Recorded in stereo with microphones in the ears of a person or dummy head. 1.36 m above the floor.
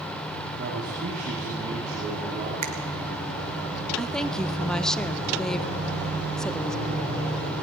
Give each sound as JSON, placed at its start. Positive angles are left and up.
{"t": 0.6, "sound": "a man speaking", "side_deg": -55, "distance_m": 2.5}
{"t": 2.6, "sound": "a finger snap", "side_deg": -40, "distance_m": 1.0}
{"t": 4.0, "sound": "a woman speaking", "side_deg": 5, "distance_m": 0.5}